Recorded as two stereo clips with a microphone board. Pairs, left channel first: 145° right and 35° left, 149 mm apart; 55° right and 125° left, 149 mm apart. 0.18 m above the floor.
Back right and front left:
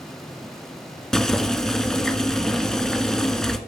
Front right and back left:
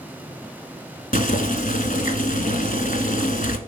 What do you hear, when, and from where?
1.1 s boiling: 60° right, 1.1 m